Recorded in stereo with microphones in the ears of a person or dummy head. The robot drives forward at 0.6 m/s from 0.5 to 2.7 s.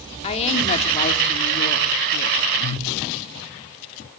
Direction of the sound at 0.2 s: 35° left (ahead or behind).